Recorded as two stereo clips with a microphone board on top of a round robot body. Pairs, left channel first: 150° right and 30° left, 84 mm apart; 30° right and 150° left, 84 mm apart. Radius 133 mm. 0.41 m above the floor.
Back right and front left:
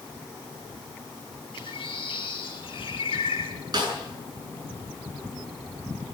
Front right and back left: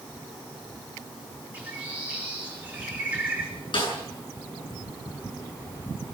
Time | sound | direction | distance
1.5 | a bird | 135° right | 5 m
3.7 | a snare drum | 10° right | 9 m